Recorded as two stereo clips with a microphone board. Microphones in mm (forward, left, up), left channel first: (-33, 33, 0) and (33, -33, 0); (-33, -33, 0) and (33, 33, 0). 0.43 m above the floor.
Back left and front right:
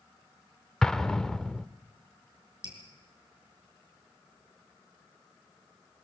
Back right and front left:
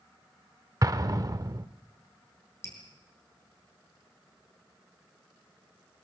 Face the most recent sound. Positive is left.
turn(degrees=-75)